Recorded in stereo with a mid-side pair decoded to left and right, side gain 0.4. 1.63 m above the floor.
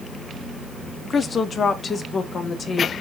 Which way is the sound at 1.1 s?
45° left.